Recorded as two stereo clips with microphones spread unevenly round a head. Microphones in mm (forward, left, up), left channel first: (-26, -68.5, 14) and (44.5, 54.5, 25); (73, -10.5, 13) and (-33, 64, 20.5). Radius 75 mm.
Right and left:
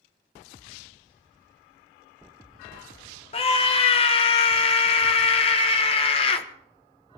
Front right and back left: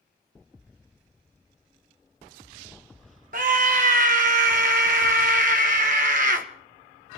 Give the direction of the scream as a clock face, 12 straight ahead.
6 o'clock.